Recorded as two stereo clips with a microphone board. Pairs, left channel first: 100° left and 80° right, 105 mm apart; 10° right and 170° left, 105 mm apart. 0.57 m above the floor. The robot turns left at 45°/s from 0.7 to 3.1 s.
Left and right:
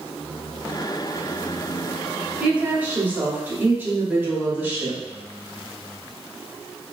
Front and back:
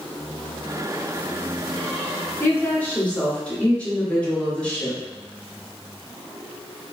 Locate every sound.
2.4 s a woman speaking: 30° right, 0.9 m; by 5.0 s 65° right, 0.9 m